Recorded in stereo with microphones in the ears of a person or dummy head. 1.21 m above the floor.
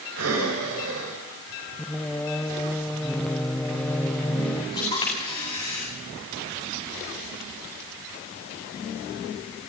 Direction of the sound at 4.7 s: 25° left (ahead or behind).